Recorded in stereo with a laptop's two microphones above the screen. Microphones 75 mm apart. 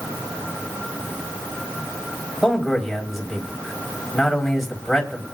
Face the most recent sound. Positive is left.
turn(degrees=0)  # may be behind; listen again after turning